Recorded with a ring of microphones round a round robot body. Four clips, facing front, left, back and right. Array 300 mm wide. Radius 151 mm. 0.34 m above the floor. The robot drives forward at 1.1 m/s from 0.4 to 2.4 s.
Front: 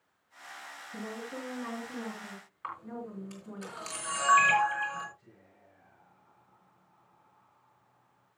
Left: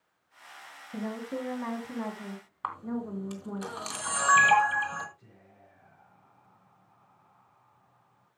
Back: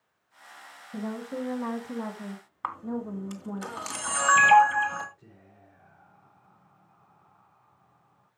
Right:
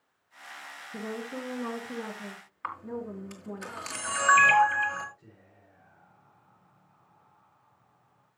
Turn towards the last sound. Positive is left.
turn(degrees=160)